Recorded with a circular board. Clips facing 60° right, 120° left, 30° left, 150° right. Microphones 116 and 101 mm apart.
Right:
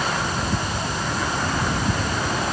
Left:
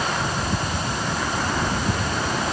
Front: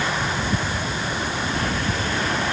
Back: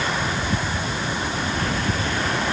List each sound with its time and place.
Only background noise.